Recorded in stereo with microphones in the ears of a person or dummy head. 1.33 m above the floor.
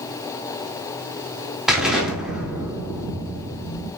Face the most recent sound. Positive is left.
turn(degrees=-5)  # may be behind; listen again after turning